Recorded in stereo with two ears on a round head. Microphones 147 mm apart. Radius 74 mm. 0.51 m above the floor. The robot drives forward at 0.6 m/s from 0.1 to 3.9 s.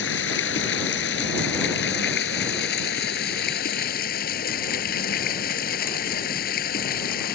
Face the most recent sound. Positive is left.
turn(degrees=60)  # may be behind; listen again after turning